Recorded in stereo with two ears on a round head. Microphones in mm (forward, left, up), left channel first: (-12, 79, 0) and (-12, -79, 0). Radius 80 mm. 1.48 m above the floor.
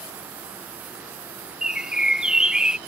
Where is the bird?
5° right (ahead or behind).